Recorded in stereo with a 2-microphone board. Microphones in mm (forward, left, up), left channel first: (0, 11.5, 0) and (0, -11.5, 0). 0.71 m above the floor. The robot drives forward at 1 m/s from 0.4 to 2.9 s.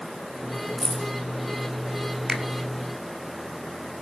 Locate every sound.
0.8 s keys jangling: 5° left (ahead or behind), 2.5 m
2.3 s a finger snap: 15° right (ahead or behind), 1.1 m